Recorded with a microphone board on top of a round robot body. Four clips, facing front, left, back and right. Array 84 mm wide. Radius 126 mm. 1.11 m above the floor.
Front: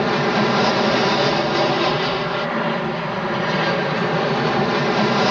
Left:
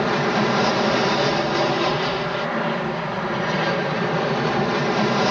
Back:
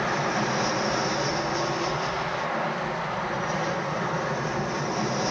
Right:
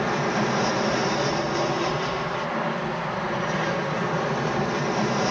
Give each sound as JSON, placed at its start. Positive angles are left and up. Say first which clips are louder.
{"t": 0.0, "sound": "an aircraft", "louder": "left 4 dB, front 8 dB", "azimuth_deg": 25}